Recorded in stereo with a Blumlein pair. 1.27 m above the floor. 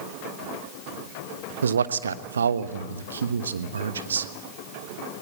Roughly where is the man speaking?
Right.